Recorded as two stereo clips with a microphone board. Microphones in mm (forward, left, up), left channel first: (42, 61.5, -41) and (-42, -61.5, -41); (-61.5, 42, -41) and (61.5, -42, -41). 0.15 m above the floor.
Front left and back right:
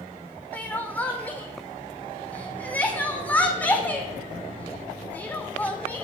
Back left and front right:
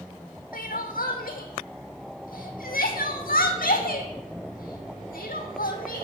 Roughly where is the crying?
Behind left.